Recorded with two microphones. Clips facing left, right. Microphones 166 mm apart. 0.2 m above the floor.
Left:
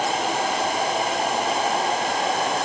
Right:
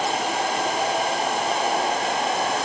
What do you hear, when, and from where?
Only background noise.